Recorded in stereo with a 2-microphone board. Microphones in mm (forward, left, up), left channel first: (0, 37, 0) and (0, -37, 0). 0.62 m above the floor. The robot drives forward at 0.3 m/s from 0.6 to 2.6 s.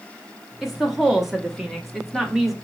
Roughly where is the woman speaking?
Centre.